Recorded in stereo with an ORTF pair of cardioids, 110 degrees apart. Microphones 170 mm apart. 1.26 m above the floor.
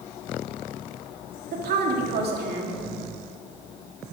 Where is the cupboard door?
I don't hear a cupboard door.